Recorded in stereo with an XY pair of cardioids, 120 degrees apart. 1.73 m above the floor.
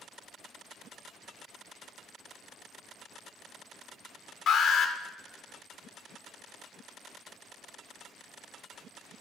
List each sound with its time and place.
4.5 s an alarm: 60° left, 1.8 m